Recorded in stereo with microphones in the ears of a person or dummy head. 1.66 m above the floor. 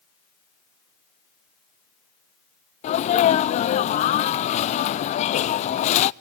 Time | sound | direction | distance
2.8 | a sneeze | 30° left (ahead or behind) | 0.5 m